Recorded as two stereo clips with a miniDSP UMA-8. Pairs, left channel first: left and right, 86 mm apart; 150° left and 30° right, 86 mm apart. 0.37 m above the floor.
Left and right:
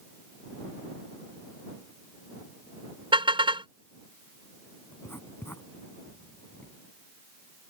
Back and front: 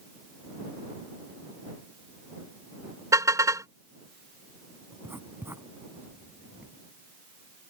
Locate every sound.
3.1 s a car horn: 80° right
4.9 s writing: 30° left